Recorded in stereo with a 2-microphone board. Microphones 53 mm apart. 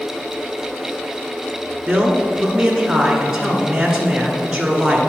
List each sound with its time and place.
1.9 s a man speaking: 10° right (ahead or behind), 1.1 m